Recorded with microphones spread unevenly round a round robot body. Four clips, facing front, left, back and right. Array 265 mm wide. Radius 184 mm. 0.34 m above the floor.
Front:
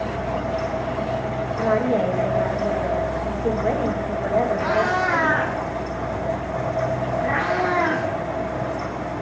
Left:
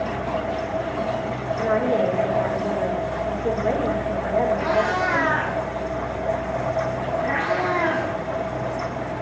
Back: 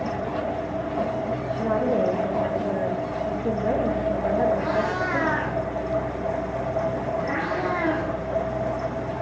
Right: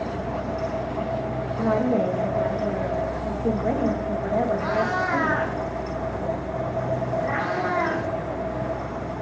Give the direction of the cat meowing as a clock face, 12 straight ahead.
12 o'clock.